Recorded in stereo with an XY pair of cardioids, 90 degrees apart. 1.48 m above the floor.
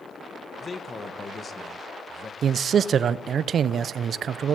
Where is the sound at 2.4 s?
55° right, 0.5 m.